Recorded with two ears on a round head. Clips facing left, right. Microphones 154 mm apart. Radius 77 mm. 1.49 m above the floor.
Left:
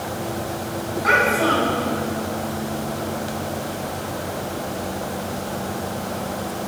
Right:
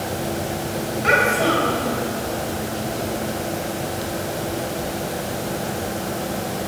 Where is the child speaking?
35° right (ahead or behind), 6 m.